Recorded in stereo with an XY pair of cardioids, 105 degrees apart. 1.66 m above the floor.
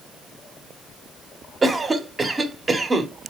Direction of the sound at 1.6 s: 30° right.